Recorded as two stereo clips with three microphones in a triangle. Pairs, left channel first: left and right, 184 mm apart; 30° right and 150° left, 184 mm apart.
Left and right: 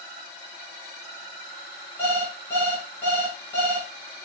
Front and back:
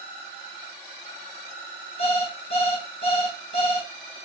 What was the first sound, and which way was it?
An alarm clock, 15° left.